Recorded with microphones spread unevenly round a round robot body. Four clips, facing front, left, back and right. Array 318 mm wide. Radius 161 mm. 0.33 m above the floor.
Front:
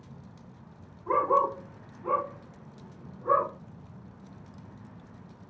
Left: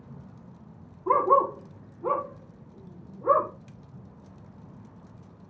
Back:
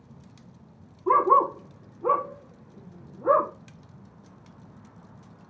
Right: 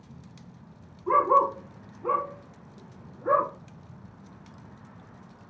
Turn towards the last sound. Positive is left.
turn(degrees=165)